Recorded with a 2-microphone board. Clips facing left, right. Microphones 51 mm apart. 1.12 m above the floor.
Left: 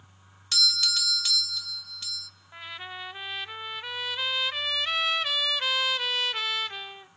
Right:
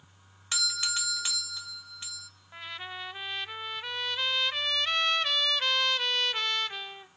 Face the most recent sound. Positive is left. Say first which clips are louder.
# left 1 dB
turn(degrees=0)  # may be behind; listen again after turning